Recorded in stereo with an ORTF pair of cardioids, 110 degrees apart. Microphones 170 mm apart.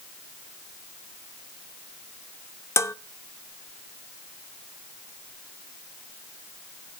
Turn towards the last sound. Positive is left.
turn(degrees=15)